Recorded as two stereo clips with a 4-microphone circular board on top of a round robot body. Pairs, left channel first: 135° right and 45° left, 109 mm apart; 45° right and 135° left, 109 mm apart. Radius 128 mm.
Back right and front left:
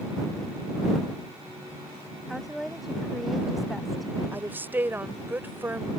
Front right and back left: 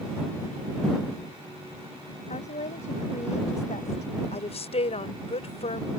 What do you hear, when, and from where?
2.3 s a woman speaking: 45° right
4.3 s a woman speaking: 25° right